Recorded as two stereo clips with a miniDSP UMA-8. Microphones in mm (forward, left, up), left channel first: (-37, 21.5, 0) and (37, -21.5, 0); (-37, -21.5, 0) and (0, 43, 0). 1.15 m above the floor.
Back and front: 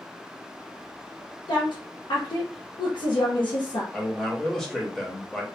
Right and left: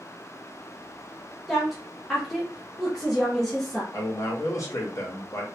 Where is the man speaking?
125° right, 0.7 m.